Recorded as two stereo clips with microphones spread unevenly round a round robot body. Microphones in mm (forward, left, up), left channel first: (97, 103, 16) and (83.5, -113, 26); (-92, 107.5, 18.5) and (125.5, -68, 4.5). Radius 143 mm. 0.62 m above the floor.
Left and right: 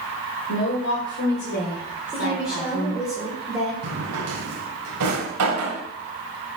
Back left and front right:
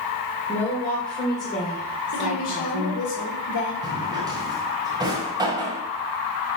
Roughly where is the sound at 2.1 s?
Behind.